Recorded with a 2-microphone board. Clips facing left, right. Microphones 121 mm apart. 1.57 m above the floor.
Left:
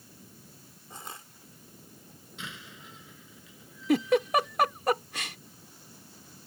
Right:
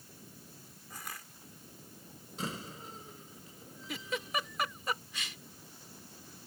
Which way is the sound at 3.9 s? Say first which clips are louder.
Left 14 dB; 65° left (ahead or behind).